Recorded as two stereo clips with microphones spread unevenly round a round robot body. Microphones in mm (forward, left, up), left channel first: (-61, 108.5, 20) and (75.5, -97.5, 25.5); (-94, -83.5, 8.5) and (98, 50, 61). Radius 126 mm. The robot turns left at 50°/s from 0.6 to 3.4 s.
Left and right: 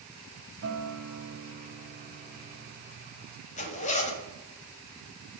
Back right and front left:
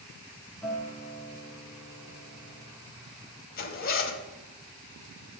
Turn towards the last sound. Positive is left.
turn(degrees=180)